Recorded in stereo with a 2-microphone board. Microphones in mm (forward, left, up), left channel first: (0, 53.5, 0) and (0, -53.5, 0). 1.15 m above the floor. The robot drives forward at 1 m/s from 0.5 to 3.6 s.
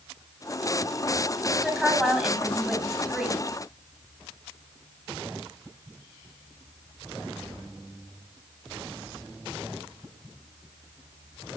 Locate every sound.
1.5 s a woman speaking: centre (ahead or behind), 7.5 m